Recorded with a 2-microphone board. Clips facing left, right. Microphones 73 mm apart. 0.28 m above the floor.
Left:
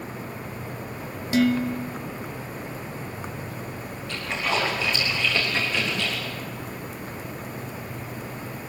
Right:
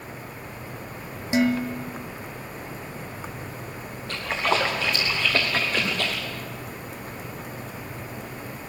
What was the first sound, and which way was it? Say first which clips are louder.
Dishes clattering: left 1 dB; 25° right (ahead or behind).